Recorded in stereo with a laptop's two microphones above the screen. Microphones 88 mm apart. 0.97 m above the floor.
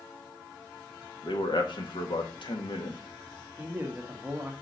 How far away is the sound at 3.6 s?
About 1.3 m.